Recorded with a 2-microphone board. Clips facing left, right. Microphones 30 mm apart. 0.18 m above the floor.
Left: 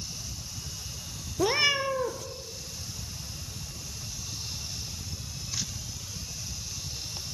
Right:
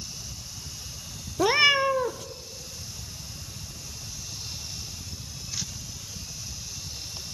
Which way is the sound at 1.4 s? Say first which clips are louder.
Right 5 dB; 20° right (ahead or behind).